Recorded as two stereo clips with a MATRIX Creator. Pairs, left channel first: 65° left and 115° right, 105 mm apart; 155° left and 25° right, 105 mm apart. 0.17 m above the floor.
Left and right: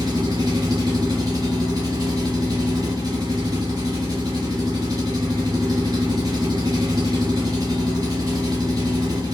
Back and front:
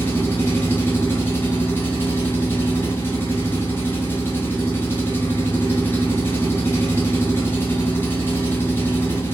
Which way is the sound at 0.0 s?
145° right.